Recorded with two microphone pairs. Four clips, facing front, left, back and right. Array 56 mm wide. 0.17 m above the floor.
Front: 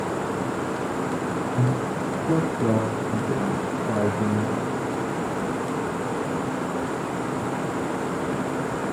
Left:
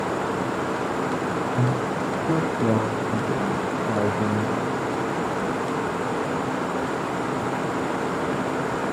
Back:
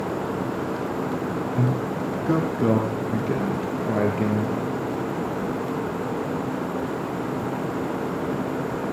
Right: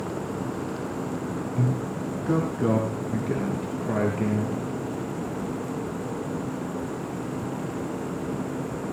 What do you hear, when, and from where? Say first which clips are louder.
1.6 s a man speaking: left 4 dB, even; 165° right, 1.8 m; by 4.6 s 155° right, 4 m